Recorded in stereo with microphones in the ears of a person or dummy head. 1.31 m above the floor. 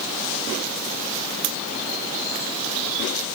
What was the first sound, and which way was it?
Only background noise.